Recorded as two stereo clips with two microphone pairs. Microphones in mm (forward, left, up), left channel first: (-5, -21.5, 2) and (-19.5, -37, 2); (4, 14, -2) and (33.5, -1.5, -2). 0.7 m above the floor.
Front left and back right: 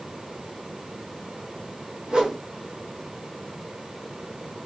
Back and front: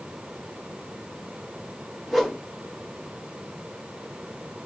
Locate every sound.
2.1 s a whoosh: 120° right, 1.6 m